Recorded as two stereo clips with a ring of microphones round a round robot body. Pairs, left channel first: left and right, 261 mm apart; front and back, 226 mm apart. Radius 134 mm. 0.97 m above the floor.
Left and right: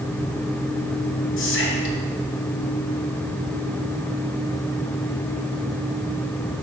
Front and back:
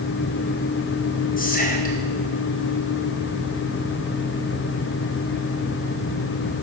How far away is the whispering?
About 1.3 m.